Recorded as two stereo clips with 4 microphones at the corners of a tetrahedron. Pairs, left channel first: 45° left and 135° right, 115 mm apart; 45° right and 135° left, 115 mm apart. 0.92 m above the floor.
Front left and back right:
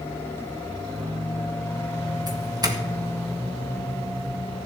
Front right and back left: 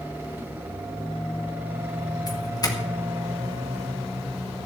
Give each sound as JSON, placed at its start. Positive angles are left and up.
{"t": 2.3, "sound": "a doorbell", "azimuth_deg": -90, "distance_m": 1.9}